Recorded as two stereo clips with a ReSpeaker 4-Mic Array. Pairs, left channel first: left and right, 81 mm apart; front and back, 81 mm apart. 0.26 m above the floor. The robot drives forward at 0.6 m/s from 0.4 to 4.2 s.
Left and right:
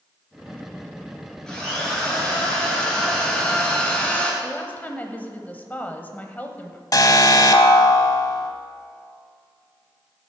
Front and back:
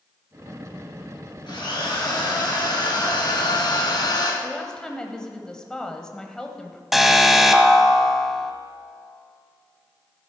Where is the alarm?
95° left, 0.9 m.